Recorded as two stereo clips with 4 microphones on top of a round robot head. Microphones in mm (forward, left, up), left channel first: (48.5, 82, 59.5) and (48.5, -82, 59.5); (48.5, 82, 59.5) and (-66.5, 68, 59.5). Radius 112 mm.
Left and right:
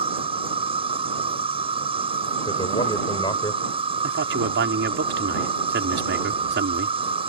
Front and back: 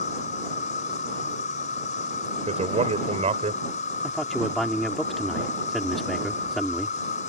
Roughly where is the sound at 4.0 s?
Right.